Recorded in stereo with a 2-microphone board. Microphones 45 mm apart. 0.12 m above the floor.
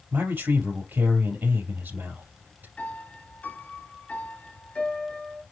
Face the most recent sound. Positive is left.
turn(degrees=30)  # may be behind; listen again after turning